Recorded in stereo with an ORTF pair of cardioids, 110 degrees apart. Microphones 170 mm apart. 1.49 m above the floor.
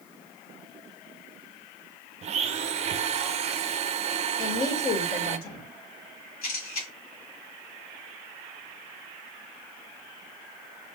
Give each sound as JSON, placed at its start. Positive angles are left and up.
{"t": 2.2, "sound": "a blender", "azimuth_deg": -40, "distance_m": 0.5}
{"t": 4.4, "sound": "a woman speaking", "azimuth_deg": 70, "distance_m": 3.0}
{"t": 6.4, "sound": "a camera shutter", "azimuth_deg": 65, "distance_m": 4.0}